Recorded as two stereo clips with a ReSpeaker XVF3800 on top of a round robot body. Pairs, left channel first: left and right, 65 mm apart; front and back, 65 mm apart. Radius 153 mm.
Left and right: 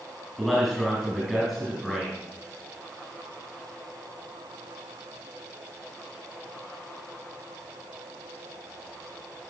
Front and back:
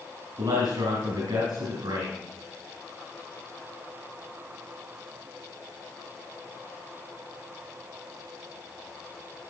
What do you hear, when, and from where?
0.4 s a man speaking: 175° left, 4.5 m